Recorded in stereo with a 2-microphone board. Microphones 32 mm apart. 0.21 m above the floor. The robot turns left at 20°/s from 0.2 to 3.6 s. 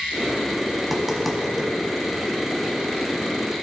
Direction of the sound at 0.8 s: 5° right (ahead or behind).